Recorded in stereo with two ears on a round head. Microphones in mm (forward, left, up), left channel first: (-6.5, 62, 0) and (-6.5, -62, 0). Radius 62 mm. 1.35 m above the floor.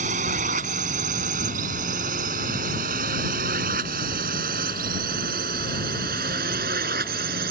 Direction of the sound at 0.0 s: 55° right (ahead or behind).